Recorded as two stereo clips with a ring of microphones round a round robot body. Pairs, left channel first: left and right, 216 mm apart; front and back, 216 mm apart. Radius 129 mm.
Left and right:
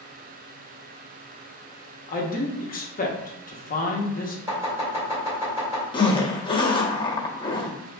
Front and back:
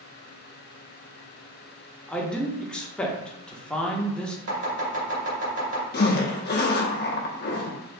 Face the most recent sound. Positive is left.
turn(degrees=25)